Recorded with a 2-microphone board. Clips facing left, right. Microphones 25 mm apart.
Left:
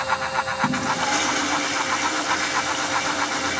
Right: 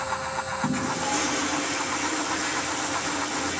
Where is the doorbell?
No doorbell in this recording.